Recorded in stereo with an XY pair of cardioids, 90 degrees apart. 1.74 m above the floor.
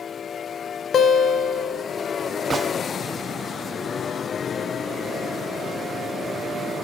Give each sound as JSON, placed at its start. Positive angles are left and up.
{"t": 0.9, "sound": "a guitar", "azimuth_deg": 55, "distance_m": 1.3}
{"t": 2.5, "sound": "a gunshot", "azimuth_deg": -40, "distance_m": 1.0}